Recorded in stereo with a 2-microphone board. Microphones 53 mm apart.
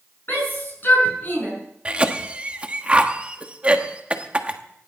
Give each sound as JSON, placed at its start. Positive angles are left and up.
{"t": 0.3, "sound": "a shout", "side_deg": 35, "distance_m": 6.5}
{"t": 1.9, "sound": "a cough", "side_deg": -20, "distance_m": 1.1}